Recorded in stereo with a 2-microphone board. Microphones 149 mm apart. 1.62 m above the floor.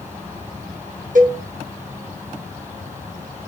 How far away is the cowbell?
About 1.2 m.